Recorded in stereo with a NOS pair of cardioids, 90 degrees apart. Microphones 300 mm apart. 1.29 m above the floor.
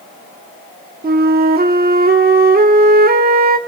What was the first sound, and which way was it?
A flute, 30° right.